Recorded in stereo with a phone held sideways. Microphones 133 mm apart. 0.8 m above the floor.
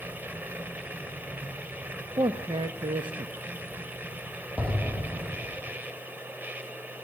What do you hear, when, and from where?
0.0 s a machine running: 15° right (ahead or behind), 1.0 m
2.2 s a man speaking: 35° right (ahead or behind), 1.0 m
4.6 s an explosion: 15° right (ahead or behind), 2.5 m